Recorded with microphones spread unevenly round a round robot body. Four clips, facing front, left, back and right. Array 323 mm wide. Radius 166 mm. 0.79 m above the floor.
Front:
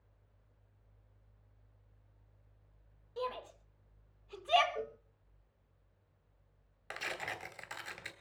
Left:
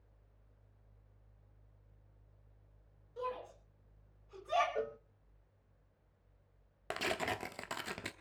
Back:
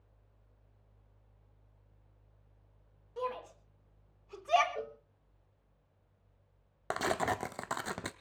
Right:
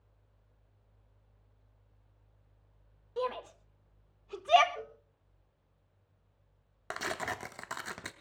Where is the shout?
95° right, 5 m; by 4.7 s 90° right, 3 m.